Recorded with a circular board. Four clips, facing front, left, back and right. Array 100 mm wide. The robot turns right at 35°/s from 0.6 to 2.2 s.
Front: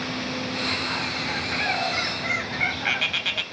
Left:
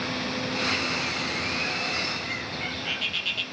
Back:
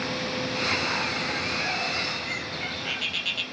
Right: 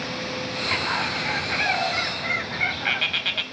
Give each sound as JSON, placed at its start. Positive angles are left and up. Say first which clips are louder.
{"t": 0.7, "sound": "a bird", "louder": "right 4 dB, back 1 dB", "azimuth_deg": -100, "distance_m": 0.9}